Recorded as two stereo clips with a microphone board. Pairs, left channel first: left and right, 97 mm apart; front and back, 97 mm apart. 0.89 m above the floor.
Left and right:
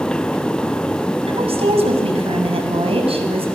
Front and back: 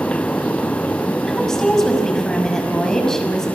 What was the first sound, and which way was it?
A woman speaking, 85° right.